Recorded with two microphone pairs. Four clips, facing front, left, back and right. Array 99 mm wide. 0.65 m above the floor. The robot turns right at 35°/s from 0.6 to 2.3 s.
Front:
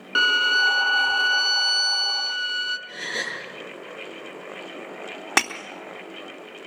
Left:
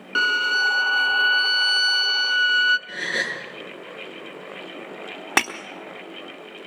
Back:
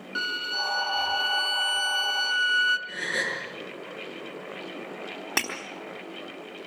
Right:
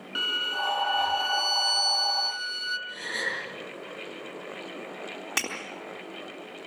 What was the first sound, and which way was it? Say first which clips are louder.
A violin: left 11 dB, front 11 dB; 30° left.